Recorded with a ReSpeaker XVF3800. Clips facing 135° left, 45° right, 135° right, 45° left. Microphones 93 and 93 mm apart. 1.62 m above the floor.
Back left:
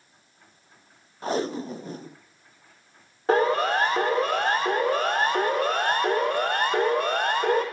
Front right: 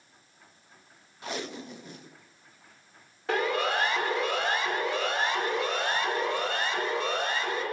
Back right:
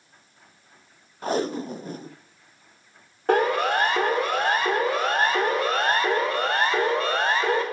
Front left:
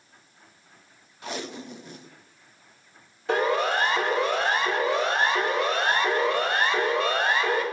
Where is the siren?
170° right, 6.5 m; by 7.6 s 170° left, 7.5 m.